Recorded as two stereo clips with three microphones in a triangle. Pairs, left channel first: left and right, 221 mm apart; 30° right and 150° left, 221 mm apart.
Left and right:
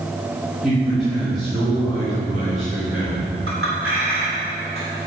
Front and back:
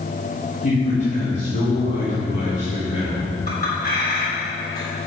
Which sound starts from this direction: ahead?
A man speaking, at 0.6 s.